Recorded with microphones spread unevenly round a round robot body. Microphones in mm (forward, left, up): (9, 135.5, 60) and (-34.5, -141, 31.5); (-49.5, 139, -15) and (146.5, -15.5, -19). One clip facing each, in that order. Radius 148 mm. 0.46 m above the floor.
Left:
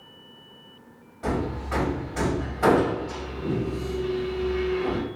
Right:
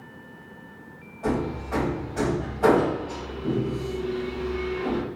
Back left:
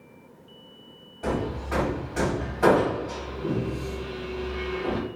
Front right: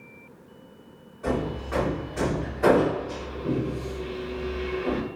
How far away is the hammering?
About 2.0 m.